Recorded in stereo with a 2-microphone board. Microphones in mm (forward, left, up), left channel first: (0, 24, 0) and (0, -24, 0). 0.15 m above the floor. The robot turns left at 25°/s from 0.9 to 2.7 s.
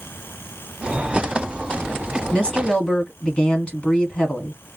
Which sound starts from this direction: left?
A woman speaking, at 2.3 s.